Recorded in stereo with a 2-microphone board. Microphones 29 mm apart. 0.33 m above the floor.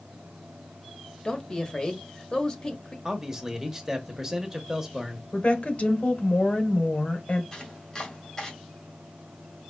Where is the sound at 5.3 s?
50° left (ahead or behind), 1.2 m.